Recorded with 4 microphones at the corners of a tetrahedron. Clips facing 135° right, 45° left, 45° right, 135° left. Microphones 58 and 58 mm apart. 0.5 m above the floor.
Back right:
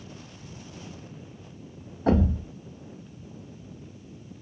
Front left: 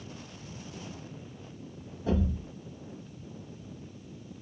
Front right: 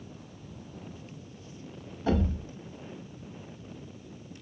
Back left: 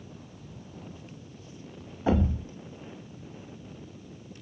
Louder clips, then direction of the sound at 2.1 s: Back right 7 dB, back left 2 dB; 155° right.